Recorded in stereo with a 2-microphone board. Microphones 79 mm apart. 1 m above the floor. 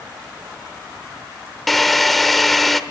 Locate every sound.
1.7 s a drill: centre (ahead or behind), 1.0 m